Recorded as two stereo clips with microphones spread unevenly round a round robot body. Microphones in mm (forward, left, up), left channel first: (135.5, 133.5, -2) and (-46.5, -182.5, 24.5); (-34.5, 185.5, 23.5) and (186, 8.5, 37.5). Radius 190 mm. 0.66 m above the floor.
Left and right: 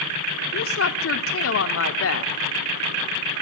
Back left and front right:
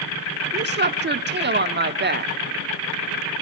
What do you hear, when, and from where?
0.5 s a woman speaking: 15° left, 1.6 m